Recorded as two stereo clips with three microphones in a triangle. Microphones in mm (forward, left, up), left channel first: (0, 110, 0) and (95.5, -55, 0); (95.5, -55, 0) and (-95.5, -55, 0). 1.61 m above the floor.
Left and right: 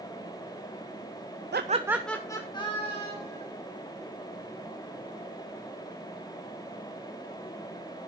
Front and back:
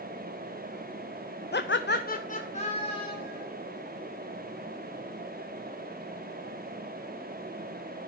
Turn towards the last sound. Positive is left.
turn(degrees=60)